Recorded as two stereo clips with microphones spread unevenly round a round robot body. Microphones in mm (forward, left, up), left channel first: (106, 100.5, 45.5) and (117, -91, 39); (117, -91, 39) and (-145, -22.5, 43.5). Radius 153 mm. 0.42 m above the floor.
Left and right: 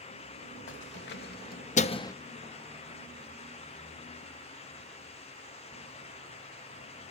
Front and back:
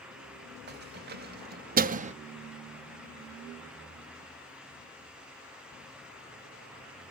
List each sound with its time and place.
0.7 s keys jangling: 110° left, 1.4 m; by 2.1 s 150° left, 0.6 m